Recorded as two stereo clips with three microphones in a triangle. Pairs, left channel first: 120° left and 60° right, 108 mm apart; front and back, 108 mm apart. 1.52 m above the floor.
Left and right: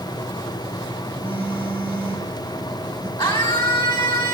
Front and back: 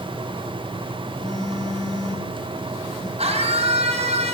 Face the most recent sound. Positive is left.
turn(degrees=160)